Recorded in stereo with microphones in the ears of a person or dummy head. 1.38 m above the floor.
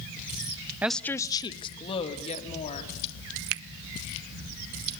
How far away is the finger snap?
About 0.6 m.